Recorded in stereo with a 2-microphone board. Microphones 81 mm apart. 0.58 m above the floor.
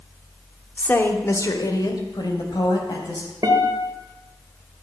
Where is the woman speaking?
20° left (ahead or behind), 1.2 m; by 3.3 s 65° left (ahead or behind), 4 m.